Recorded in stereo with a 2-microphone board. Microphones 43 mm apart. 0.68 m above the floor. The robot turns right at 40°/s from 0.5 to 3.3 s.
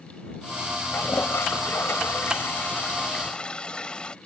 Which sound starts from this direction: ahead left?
A toilet flushing, at 0.9 s.